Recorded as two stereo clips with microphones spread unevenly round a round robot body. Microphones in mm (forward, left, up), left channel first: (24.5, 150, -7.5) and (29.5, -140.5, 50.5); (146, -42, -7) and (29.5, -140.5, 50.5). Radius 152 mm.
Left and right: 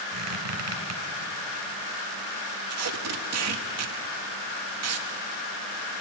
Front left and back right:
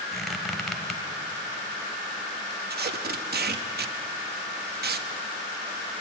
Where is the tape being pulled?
120° right, 1.2 m.